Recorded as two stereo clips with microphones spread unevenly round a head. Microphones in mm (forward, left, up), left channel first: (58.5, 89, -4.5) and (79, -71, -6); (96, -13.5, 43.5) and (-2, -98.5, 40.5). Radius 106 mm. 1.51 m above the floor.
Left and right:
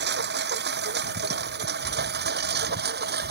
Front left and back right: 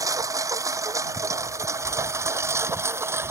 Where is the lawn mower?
75° right; by 3.3 s 70° right.